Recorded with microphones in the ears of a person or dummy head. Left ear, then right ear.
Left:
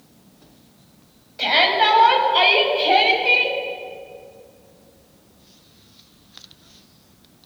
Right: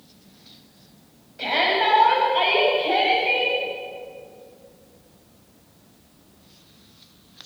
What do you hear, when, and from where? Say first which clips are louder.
1.4 s a shout: left 4 dB; 25° left (ahead or behind), 7.5 m; by 3.6 s 40° left (ahead or behind), 8.5 m